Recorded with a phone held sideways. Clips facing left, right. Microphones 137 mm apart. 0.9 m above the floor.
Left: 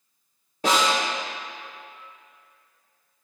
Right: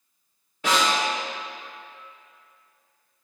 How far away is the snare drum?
About 2.5 m.